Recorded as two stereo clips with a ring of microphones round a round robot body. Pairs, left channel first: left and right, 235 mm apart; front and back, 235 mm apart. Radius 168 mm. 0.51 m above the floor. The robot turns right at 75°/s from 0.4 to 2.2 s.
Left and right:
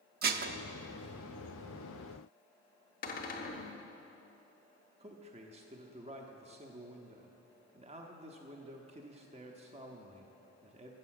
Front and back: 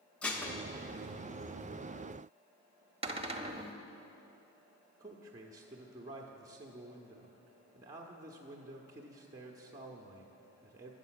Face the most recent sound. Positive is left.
turn(degrees=-120)